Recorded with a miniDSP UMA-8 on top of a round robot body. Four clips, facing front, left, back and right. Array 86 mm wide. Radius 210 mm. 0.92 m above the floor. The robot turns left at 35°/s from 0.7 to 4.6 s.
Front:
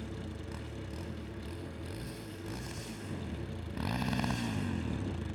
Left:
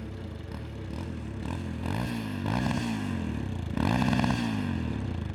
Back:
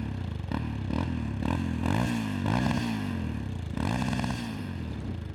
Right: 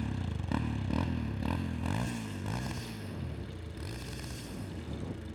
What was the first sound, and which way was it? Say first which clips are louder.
A motorcycle: right 2 dB, back 5 dB; 140° right.